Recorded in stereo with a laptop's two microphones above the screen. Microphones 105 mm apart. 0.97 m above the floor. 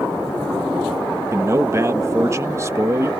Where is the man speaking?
30° right (ahead or behind).